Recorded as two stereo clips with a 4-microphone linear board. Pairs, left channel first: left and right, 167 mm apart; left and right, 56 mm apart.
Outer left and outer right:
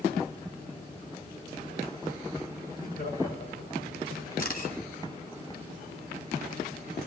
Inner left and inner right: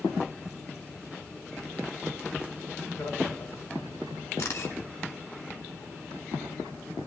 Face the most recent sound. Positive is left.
turn(degrees=60)  # may be behind; listen again after turning